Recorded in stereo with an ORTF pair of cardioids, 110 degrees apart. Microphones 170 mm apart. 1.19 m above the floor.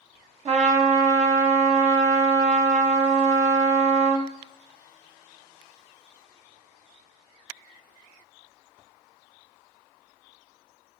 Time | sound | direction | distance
0.5 | a trumpet | 35° right | 0.9 m